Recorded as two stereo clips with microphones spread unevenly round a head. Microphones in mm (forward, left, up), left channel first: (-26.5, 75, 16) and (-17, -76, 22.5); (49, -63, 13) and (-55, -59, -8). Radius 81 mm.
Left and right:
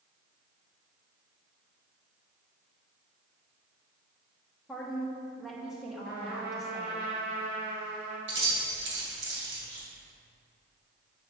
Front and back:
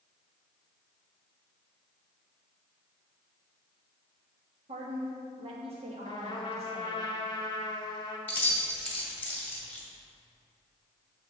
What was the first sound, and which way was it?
A woman speaking, 175° right.